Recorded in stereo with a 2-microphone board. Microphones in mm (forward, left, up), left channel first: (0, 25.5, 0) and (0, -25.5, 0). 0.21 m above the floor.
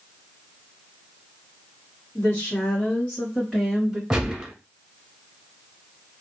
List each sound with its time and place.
2.1 s a woman speaking: 40° left (ahead or behind), 2 m; by 4.0 s 5° right (ahead or behind), 2.5 m
4.1 s a gunshot: 10° right (ahead or behind), 1.2 m